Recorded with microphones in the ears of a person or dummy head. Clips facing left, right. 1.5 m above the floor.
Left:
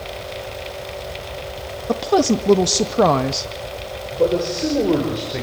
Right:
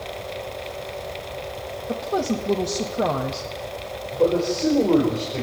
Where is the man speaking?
15° left (ahead or behind), 5 m.